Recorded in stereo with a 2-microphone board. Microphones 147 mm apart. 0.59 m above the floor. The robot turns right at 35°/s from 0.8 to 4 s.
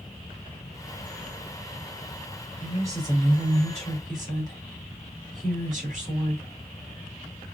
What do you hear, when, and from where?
2.6 s a woman speaking: 170° right, 2.5 m; by 6.5 s 120° right, 2.5 m